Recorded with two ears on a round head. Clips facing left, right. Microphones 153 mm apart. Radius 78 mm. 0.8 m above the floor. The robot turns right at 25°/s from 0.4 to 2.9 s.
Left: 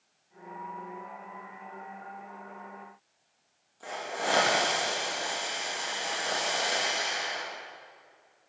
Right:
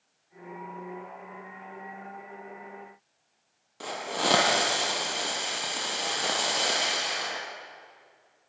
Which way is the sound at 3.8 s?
80° right.